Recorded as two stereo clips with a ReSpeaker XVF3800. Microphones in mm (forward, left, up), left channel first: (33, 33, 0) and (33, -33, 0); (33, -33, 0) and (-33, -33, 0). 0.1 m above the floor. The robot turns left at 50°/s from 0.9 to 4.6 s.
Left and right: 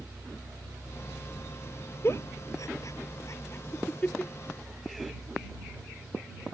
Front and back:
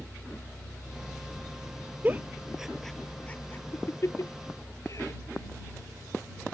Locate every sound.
2.0 s a giggle: 125° left; by 5.1 s straight ahead